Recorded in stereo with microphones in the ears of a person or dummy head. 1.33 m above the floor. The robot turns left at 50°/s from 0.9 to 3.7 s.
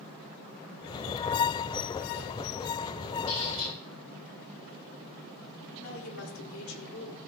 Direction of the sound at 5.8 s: 75° left (ahead or behind).